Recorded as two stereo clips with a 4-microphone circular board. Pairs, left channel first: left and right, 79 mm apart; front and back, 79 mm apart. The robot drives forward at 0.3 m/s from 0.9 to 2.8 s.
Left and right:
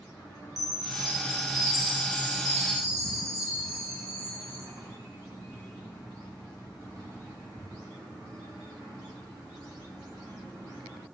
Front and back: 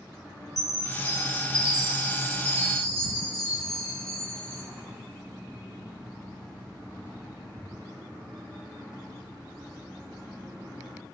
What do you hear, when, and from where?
0.6 s a chime: 90° left, 0.8 m; by 4.6 s 135° left, 1.0 m